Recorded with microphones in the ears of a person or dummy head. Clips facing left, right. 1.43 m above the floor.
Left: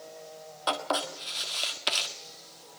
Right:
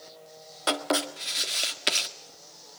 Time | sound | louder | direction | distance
0.7 | writing | right 3 dB | 30° right (ahead or behind) | 1.6 m